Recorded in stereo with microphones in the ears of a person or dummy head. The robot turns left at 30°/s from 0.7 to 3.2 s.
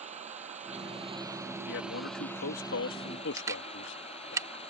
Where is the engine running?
140° right; by 4.7 s 145° left.